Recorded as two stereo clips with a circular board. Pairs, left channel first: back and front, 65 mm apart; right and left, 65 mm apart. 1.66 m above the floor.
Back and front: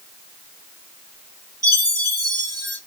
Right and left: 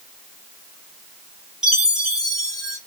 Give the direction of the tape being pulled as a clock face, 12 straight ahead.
I don't hear tape being pulled.